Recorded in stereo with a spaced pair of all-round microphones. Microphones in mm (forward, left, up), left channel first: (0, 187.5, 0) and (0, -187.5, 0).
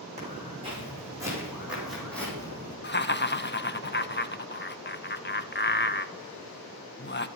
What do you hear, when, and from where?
0.2 s footsteps: 15° right (ahead or behind), 5 m; by 2.7 s 10° left (ahead or behind), 3.5 m
2.8 s laughter: 30° left (ahead or behind), 0.6 m